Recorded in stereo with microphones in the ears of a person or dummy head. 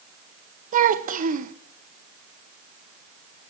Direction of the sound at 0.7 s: 45° right (ahead or behind).